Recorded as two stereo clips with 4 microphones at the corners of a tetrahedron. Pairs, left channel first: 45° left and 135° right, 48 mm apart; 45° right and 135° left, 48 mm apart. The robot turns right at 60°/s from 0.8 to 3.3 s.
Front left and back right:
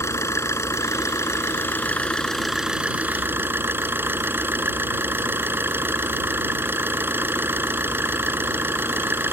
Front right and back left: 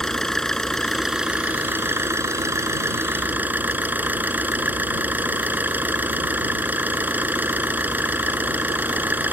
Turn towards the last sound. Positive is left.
turn(degrees=-175)